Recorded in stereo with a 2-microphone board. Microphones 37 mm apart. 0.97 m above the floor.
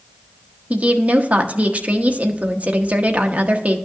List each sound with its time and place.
0.7 s a woman speaking: 40° right (ahead or behind), 1.0 m